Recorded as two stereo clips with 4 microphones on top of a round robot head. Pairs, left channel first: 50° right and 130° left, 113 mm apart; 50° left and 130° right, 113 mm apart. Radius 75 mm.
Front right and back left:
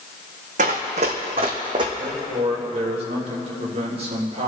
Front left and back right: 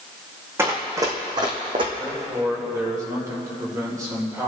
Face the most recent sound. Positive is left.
turn(degrees=165)